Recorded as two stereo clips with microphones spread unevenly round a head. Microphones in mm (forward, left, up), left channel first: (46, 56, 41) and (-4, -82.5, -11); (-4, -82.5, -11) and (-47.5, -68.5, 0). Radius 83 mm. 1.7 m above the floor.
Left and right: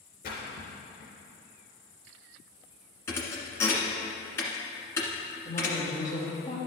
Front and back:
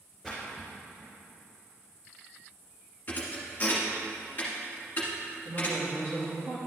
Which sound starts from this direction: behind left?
A woman speaking, at 5.5 s.